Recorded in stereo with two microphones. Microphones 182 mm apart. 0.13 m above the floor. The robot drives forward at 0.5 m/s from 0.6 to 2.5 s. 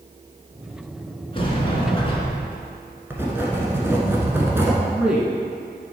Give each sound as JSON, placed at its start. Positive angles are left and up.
{"t": 1.3, "sound": "a sliding door", "side_deg": 30, "distance_m": 1.2}
{"t": 3.1, "sound": "writing", "side_deg": -15, "distance_m": 1.2}
{"t": 4.8, "sound": "a man speaking", "side_deg": -5, "distance_m": 1.0}